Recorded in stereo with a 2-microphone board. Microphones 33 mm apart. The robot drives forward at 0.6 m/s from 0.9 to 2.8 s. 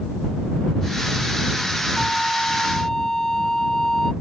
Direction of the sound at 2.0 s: 15° left (ahead or behind).